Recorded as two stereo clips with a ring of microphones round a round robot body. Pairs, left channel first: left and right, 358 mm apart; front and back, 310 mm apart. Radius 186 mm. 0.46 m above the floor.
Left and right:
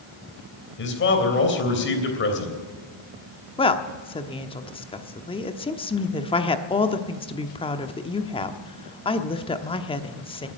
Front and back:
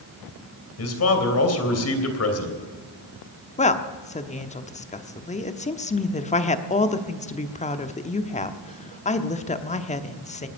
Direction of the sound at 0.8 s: 35° left.